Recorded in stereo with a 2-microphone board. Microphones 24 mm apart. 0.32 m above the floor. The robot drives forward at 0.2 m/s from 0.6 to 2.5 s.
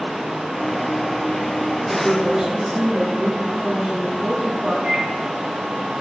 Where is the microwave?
25° right (ahead or behind), 0.8 m.